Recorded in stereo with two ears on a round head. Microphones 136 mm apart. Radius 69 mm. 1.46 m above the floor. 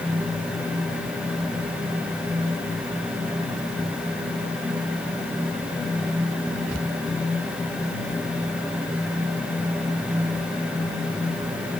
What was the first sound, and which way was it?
Only background noise.